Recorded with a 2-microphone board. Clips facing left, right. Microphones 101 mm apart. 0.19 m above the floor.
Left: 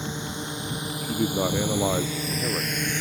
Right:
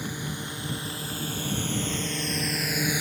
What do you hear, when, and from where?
0.0 s a drone: 20° left (ahead or behind); by 3.0 s 10° right (ahead or behind)
1.0 s a man speaking: 75° left (ahead or behind)